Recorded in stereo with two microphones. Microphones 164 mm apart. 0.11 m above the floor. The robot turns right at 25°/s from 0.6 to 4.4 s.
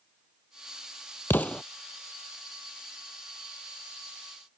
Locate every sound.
1.3 s an explosion: 15° left (ahead or behind); by 1.6 s 5° left (ahead or behind)